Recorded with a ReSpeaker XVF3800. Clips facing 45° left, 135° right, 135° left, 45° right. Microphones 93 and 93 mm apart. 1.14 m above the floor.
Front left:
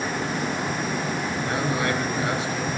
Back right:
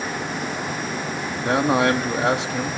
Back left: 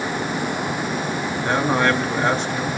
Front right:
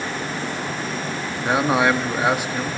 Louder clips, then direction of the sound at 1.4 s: Back right 9 dB, front right 1 dB; 125° right.